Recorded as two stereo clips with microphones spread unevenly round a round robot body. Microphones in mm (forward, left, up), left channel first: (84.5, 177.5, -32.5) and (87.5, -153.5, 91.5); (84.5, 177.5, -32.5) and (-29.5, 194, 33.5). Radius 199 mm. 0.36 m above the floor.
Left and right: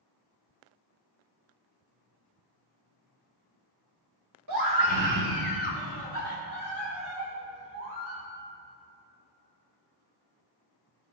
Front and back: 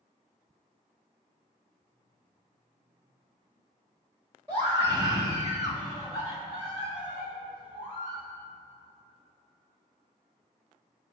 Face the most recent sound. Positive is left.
turn(degrees=-90)